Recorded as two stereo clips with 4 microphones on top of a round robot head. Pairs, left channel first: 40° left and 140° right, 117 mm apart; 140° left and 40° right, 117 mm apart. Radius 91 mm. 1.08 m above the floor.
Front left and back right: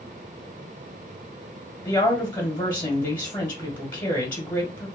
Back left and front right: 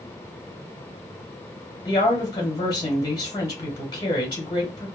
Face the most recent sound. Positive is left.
turn(degrees=95)